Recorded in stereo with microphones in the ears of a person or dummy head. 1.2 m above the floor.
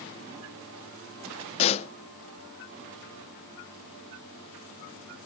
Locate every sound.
1.6 s a pop: 35° left (ahead or behind), 0.6 m